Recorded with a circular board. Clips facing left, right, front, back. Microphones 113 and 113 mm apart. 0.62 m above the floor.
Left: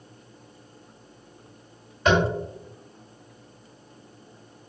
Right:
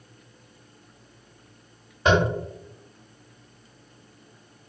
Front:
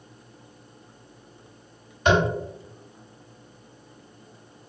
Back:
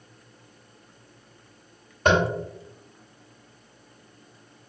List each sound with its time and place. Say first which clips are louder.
2.0 s tapping: even, even; 150° right, 2.0 m